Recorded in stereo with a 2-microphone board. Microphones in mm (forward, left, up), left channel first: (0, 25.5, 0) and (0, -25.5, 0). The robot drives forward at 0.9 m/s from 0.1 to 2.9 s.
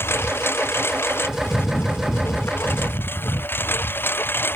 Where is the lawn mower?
50° left (ahead or behind); by 4.6 s 45° left (ahead or behind).